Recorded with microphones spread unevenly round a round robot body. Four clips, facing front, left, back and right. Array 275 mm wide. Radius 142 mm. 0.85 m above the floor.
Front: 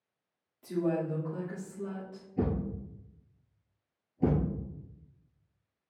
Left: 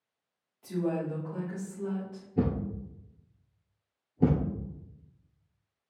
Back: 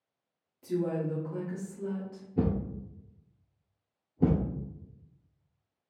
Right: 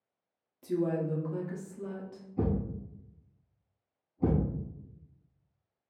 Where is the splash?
No splash in this recording.